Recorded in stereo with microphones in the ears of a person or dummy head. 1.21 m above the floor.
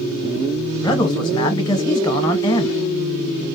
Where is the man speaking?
25° left (ahead or behind), 0.7 m.